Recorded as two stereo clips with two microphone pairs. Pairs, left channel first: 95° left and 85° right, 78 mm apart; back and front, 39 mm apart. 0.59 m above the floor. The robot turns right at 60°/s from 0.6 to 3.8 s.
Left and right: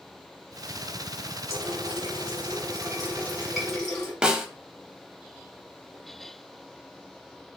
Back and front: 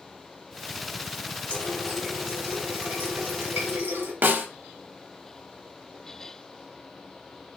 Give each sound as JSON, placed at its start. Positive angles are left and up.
{"t": 1.5, "sound": "a running tap", "azimuth_deg": -125, "distance_m": 2.0}
{"t": 4.2, "sound": "a snare drum", "azimuth_deg": -10, "distance_m": 0.6}